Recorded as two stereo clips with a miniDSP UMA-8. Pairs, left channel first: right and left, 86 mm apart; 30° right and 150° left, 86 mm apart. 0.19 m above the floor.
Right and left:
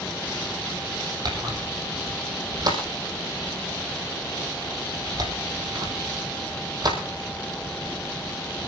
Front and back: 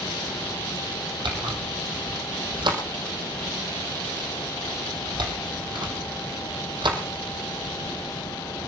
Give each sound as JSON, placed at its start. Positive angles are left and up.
{"t": 1.2, "sound": "a camera shutter", "azimuth_deg": 130, "distance_m": 4.0}